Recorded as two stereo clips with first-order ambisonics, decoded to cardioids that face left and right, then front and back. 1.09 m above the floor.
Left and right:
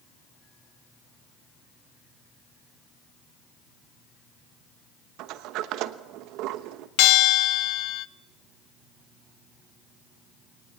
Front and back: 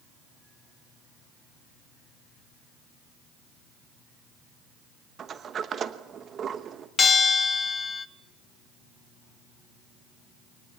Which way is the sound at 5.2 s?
120° right.